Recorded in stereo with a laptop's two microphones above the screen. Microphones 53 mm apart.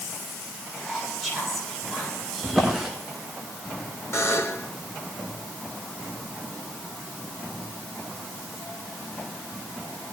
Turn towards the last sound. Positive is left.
turn(degrees=50)  # may be behind; listen again after turning